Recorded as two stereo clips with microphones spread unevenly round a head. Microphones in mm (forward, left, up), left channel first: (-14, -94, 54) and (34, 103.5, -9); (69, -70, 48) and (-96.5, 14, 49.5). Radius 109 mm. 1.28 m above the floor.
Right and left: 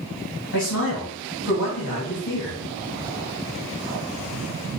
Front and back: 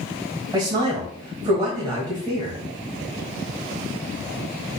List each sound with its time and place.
0.5 s a man speaking: 140° right, 1.6 m